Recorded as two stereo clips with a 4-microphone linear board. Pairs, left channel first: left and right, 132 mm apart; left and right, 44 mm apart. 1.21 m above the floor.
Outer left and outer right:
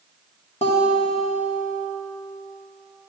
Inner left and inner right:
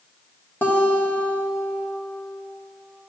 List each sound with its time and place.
0.6 s a guitar: 50° left (ahead or behind), 1.1 m